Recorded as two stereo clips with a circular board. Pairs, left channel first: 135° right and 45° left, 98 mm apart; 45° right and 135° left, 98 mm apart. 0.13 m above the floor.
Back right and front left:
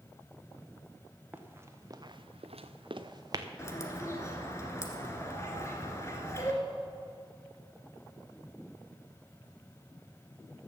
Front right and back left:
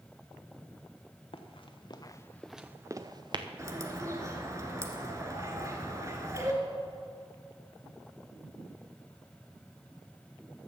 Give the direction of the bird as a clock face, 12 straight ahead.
6 o'clock.